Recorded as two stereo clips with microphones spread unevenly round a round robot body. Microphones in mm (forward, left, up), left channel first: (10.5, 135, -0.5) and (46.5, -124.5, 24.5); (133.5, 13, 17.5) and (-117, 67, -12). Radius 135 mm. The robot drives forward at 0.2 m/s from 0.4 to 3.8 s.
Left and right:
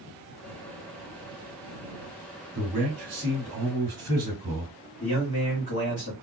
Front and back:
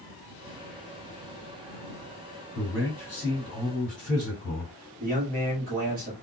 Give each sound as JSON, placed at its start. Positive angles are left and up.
{"t": 2.5, "sound": "a man speaking", "azimuth_deg": -95, "distance_m": 1.7}
{"t": 5.0, "sound": "a man speaking", "azimuth_deg": 140, "distance_m": 1.3}